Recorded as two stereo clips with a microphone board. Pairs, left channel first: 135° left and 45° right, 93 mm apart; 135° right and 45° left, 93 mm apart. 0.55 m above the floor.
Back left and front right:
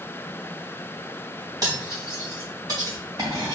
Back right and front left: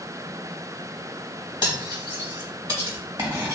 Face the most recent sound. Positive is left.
turn(degrees=0)